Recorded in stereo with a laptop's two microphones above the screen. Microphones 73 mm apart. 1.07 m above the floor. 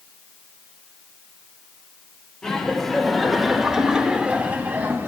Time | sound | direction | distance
2.4 | laughter | 10° left (ahead or behind) | 3.5 m